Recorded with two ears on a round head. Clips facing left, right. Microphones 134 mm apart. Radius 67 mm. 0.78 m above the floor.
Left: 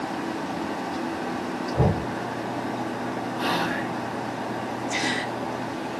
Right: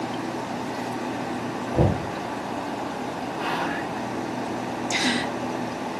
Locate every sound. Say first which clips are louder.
1.7 s knocking: right 2 dB; 45° right (ahead or behind), 9.5 m
3.4 s whispering: left 1 dB; 40° left (ahead or behind), 1.3 m
4.9 s a gasp: right 4 dB; 75° right (ahead or behind), 3.5 m